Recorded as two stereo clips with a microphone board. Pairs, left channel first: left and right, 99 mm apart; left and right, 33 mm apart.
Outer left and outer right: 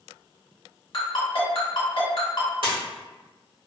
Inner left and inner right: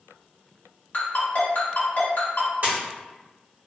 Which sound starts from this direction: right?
A splash, at 2.6 s.